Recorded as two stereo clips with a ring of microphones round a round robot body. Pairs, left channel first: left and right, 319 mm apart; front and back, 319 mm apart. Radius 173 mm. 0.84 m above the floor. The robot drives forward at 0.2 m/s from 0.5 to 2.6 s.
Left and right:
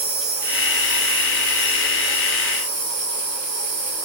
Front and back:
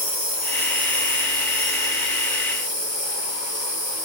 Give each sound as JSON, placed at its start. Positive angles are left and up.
{"t": 0.0, "sound": "an insect", "azimuth_deg": -110, "distance_m": 1.5}